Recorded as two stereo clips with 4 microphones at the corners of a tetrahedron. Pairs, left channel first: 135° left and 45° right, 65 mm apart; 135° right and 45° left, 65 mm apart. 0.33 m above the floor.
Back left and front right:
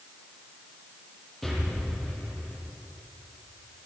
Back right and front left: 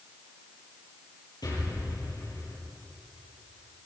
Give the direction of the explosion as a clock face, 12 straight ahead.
5 o'clock.